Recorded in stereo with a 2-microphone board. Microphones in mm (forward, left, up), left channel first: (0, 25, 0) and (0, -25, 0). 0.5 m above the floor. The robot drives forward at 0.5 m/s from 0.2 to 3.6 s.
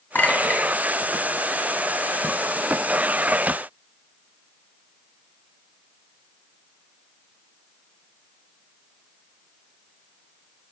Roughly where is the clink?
Left.